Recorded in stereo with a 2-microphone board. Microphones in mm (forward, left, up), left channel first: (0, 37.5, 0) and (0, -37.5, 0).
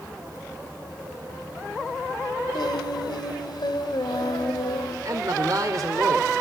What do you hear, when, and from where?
2.5 s singing: 70° left (ahead or behind), 2.5 m
5.0 s a man speaking: 50° right (ahead or behind), 2 m